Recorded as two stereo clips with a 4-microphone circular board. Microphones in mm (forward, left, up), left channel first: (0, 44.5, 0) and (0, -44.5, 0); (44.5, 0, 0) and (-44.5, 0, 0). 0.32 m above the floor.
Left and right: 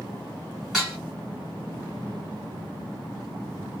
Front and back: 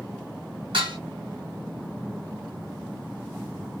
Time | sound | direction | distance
0.7 | dishes clattering | 175° right | 2.5 m